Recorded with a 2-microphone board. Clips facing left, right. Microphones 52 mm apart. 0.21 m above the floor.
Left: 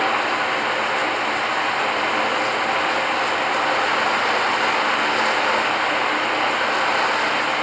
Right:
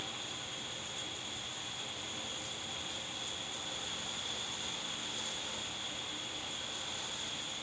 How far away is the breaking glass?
No breaking glass in this recording.